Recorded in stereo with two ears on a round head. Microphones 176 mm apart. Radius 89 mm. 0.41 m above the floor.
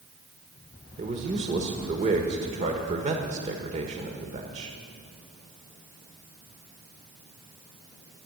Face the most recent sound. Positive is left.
turn(degrees=-35)  # may be behind; listen again after turning